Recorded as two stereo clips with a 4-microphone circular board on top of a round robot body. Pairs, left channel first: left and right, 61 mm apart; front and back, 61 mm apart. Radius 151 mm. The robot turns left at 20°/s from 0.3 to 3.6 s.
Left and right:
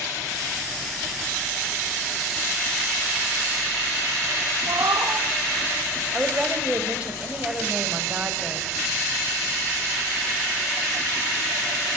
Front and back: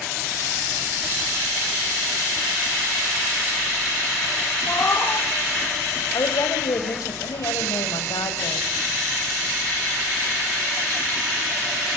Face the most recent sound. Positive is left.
turn(degrees=-20)